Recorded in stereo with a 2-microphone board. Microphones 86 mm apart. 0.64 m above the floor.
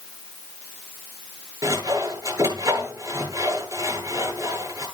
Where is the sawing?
45° right (ahead or behind), 10 m.